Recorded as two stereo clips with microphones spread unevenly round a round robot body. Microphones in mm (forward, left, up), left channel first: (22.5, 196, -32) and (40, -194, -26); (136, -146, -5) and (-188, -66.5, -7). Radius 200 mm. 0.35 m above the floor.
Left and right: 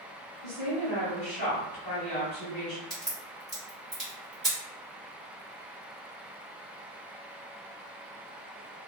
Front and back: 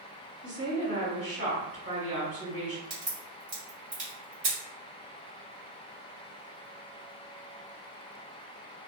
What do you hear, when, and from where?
0.4 s a woman speaking: 150° left, 1.8 m
2.9 s a crack: straight behind, 1.5 m